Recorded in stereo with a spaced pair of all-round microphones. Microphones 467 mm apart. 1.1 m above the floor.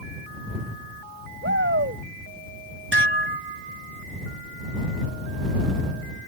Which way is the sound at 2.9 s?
55° right (ahead or behind).